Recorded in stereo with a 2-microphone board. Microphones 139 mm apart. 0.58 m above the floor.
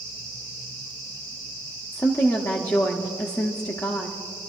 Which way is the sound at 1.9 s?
25° left (ahead or behind).